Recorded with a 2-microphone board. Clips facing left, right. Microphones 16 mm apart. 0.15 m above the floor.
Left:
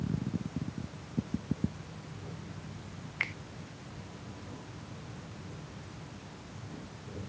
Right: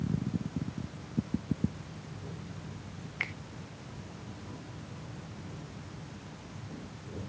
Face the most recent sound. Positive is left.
turn(degrees=5)  # may be behind; listen again after turning